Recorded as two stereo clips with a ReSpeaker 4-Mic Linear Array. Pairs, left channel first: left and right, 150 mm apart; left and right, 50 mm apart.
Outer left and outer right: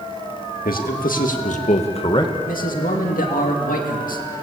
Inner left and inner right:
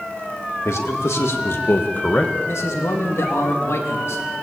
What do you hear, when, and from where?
0.7 s a man speaking: 75° left (ahead or behind), 2.5 m; by 2.3 s 25° left (ahead or behind), 1.3 m
2.5 s a man speaking: 65° left (ahead or behind), 2 m